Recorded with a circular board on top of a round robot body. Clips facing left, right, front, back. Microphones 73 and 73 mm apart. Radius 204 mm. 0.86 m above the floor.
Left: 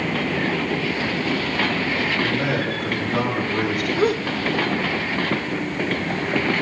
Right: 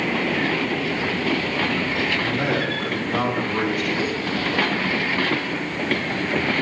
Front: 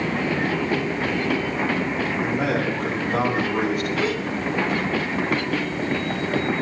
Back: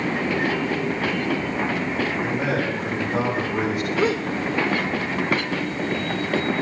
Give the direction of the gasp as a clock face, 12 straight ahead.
8 o'clock.